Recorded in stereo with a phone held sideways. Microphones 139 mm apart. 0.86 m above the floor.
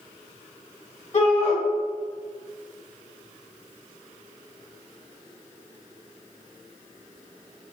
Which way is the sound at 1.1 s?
50° left (ahead or behind).